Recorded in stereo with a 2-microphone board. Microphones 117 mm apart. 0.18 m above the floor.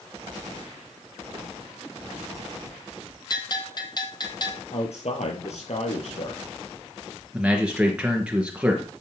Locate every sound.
3.3 s a bell: 35° left (ahead or behind), 1.3 m
4.7 s a man speaking: 65° left (ahead or behind), 5.5 m
7.3 s a man speaking: 10° right (ahead or behind), 3.5 m